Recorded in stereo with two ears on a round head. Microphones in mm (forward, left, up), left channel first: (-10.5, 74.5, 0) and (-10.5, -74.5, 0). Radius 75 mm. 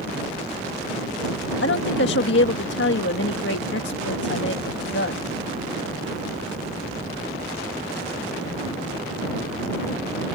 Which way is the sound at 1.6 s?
80° left.